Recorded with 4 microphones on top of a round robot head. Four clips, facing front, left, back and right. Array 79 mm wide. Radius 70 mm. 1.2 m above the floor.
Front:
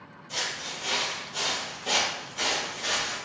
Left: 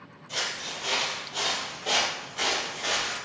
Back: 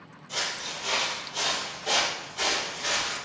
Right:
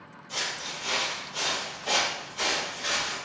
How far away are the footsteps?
About 1.3 m.